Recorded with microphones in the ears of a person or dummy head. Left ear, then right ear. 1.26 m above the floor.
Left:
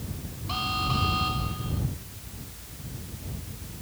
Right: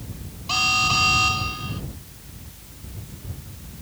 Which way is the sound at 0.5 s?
80° right.